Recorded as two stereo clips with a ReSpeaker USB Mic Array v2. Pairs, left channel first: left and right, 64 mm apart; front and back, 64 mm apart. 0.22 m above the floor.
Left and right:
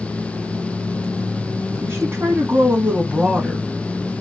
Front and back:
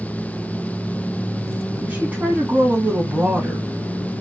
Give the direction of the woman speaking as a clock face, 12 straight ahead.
4 o'clock.